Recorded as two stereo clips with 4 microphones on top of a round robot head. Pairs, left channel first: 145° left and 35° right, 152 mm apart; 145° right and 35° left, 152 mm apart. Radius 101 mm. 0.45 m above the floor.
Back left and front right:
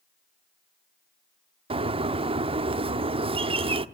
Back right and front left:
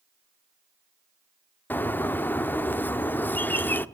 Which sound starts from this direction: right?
A bird, at 1.7 s.